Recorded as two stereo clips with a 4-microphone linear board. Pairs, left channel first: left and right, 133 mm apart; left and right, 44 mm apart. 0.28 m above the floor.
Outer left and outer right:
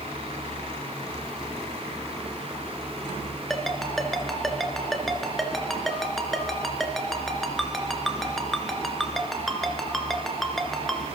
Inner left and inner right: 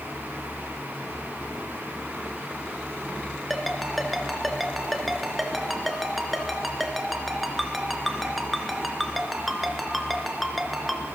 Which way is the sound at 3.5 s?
Centre (ahead or behind).